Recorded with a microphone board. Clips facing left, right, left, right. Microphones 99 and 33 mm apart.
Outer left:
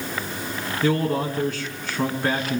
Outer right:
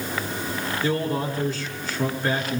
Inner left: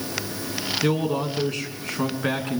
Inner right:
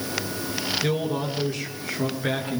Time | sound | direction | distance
0.8 | a man speaking | 60° left (ahead or behind) | 5.5 m